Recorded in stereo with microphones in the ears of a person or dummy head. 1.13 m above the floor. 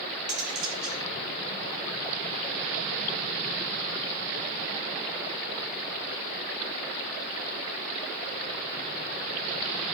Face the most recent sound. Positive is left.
turn(degrees=0)  # may be behind; listen again after turning